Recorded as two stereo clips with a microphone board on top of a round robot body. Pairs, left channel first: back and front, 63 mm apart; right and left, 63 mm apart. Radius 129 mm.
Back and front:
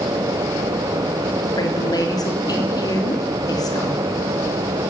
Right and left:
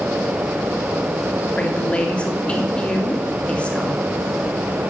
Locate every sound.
1.6 s a woman speaking: 165° right, 3 m